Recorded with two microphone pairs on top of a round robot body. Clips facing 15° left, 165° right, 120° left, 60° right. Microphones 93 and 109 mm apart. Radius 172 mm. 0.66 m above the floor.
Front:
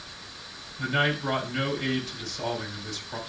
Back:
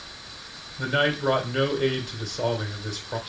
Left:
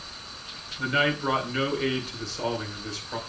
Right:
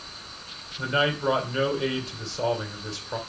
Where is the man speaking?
120° right, 3.5 m.